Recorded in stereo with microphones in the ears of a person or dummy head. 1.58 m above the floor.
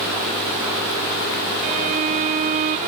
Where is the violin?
45° right (ahead or behind).